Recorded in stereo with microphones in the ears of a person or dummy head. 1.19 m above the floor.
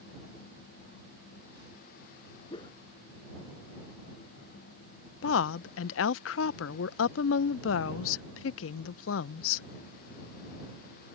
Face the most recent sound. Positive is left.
turn(degrees=75)  # may be behind; listen again after turning